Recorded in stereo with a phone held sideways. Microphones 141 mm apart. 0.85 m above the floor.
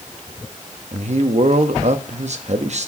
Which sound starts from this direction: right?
A man speaking, at 0.9 s.